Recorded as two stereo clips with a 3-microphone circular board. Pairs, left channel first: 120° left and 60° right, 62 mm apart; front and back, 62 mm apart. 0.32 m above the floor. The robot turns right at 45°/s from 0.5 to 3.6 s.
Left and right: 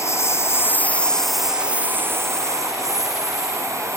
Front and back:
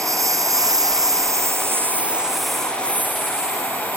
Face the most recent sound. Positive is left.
turn(degrees=-30)